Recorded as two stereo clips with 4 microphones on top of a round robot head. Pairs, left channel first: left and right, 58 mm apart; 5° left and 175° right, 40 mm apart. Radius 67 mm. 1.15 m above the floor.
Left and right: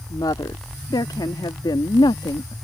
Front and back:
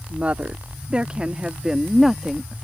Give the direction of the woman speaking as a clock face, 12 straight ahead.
8 o'clock.